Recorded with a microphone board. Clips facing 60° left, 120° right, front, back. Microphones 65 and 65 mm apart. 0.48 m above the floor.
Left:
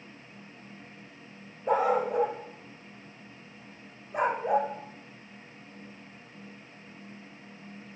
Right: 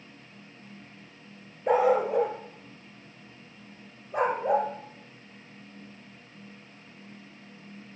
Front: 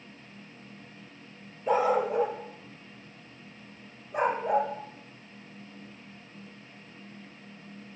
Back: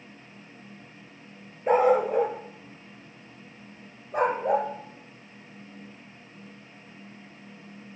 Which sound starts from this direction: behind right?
A dog barking, at 1.7 s.